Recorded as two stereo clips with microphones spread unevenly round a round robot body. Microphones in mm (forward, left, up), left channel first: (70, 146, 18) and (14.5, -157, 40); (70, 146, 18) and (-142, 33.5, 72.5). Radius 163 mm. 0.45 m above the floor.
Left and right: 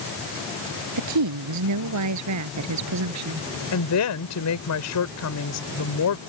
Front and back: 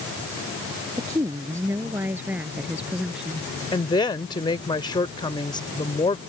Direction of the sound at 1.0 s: 70° right.